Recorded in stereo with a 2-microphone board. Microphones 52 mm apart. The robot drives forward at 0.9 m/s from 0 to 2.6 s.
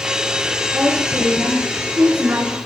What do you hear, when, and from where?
0.7 s a woman speaking: 50° right (ahead or behind), 7 m; by 2.6 s 60° right (ahead or behind), 6 m